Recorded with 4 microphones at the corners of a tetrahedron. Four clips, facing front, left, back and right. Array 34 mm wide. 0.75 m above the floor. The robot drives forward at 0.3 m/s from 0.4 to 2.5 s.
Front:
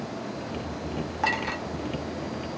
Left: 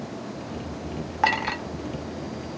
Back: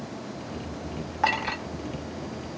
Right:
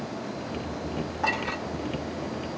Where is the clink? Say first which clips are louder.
Left 5 dB, back 2 dB; 100° left, 0.8 m; by 1.6 s 110° left, 0.8 m.